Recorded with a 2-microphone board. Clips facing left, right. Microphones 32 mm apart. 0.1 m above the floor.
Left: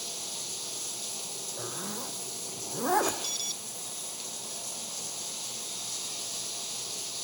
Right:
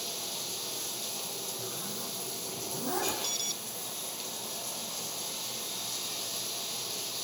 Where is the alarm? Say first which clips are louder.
Even; centre (ahead or behind), 0.9 m.